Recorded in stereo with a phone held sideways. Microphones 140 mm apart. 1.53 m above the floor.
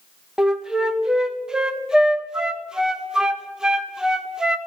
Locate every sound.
0.4 s a flute: 5° right (ahead or behind), 0.9 m